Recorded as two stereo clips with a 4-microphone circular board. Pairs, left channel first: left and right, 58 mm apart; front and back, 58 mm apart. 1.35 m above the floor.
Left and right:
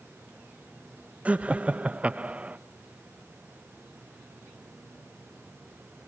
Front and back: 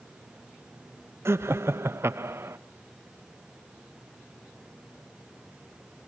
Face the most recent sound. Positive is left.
turn(degrees=-150)